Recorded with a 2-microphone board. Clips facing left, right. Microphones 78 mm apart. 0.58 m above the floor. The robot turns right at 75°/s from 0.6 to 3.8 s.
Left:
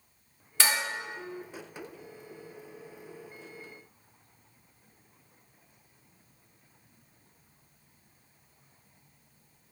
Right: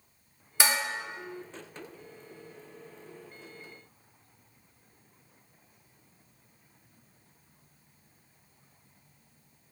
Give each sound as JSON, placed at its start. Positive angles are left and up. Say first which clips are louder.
{"t": 0.6, "sound": "dishes clattering", "louder": "right 1 dB", "side_deg": -15, "distance_m": 0.6}